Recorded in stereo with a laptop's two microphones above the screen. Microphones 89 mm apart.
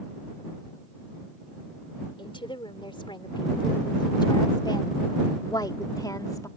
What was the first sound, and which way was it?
A woman speaking, 70° left (ahead or behind).